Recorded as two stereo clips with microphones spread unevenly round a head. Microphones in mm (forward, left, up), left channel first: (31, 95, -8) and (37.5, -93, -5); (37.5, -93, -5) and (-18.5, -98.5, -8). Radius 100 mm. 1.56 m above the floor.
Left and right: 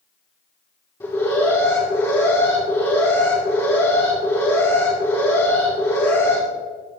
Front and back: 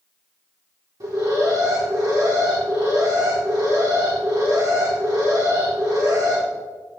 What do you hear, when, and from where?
1.0 s an alarm: 170° left, 2.5 m